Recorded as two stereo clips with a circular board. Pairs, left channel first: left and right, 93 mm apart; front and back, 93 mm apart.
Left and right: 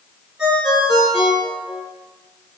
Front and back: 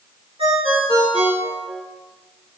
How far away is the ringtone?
About 1.3 m.